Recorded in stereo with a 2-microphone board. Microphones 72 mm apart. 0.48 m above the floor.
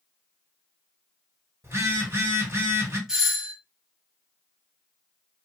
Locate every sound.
1.6 s a phone buzzing: 35° right (ahead or behind), 1.7 m
3.1 s a doorbell: 10° right (ahead or behind), 1.3 m